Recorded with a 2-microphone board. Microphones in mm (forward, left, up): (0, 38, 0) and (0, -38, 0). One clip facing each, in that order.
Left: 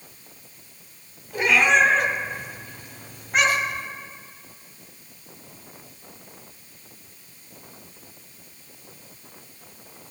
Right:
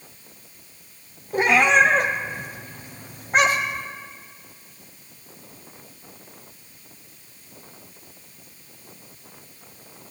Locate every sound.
1.3 s a cat meowing: 45° right (ahead or behind), 1.7 m